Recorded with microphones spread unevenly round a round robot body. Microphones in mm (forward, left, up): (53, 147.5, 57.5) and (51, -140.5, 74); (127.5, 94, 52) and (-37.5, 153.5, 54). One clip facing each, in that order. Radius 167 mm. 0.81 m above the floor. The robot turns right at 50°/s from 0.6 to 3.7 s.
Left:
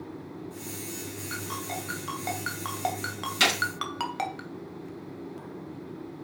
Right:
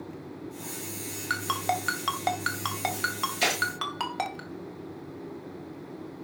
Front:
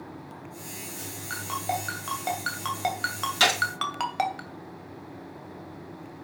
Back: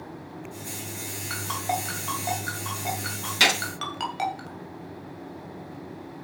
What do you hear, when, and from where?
1.3 s a ringtone: 115° right, 2.5 m; by 4.4 s 5° left, 2.5 m
3.4 s a gunshot: 85° left, 3.5 m; by 3.6 s 95° left, 3.5 m